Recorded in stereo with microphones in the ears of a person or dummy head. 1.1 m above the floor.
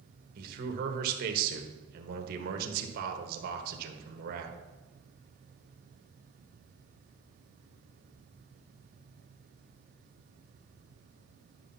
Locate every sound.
0.3 s a man speaking: 55° right (ahead or behind), 1.3 m